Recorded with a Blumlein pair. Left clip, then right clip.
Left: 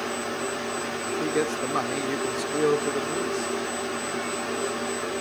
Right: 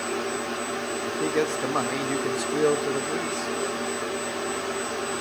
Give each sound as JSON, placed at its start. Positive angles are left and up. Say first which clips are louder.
{"t": 1.1, "sound": "a man speaking", "louder": "right 1 dB", "azimuth_deg": -5, "distance_m": 1.2}